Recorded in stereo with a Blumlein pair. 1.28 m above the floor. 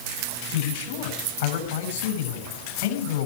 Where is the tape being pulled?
I don't hear tape being pulled.